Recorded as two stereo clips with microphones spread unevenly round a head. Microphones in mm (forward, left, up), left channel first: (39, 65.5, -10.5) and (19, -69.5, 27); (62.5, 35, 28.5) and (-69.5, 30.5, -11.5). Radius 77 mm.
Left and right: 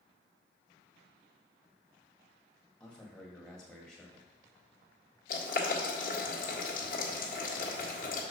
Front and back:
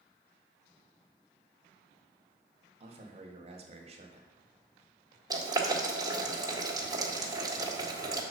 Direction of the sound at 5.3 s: 120° left.